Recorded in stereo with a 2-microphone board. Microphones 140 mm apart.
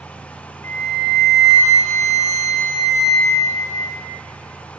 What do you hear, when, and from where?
0.6 s a flute: 60° right (ahead or behind), 1.0 m